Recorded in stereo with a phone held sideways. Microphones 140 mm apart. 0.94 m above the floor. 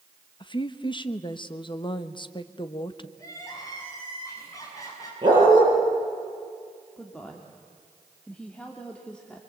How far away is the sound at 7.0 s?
About 2 m.